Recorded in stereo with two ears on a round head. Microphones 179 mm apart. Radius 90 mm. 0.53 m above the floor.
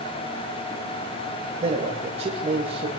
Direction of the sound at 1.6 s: 35° right (ahead or behind).